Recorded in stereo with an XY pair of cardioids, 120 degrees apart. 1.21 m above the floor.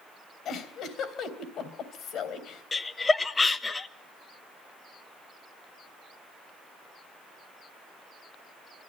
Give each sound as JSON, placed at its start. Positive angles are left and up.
{"t": 0.5, "sound": "a giggle", "azimuth_deg": 60, "distance_m": 3.0}
{"t": 2.7, "sound": "laughter", "azimuth_deg": 20, "distance_m": 1.1}